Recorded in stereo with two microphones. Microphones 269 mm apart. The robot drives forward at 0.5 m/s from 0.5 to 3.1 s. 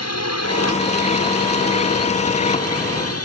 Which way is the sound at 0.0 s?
70° left (ahead or behind).